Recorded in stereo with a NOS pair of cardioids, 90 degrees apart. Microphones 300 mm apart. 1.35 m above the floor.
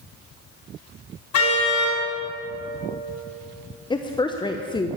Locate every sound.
1.3 s a car horn: 65° left, 5 m
3.9 s a woman speaking: 15° left, 0.9 m